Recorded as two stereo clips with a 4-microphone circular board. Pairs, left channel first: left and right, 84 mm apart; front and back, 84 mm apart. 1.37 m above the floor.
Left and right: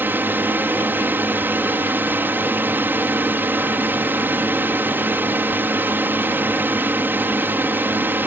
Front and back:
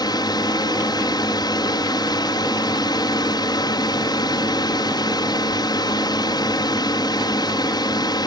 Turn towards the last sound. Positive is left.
turn(degrees=-25)